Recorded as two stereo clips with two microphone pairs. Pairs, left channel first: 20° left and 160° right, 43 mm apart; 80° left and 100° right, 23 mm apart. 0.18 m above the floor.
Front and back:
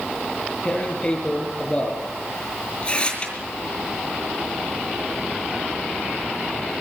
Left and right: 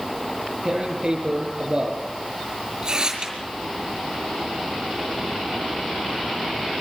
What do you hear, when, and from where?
0.7 s tearing paper: 45° right, 6 m